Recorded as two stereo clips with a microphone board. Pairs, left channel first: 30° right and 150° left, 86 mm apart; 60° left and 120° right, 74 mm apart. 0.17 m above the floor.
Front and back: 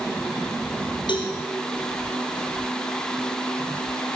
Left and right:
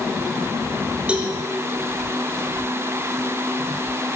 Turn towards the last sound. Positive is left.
turn(degrees=-45)